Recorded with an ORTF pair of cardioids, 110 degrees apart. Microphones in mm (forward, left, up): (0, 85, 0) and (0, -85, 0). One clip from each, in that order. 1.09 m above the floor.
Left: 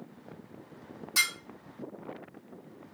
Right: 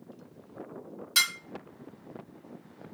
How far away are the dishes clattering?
About 1.5 m.